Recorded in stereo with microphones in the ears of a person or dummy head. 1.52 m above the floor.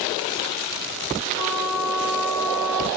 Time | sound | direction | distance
1.4 | a trumpet | 30° left (ahead or behind) | 6.5 m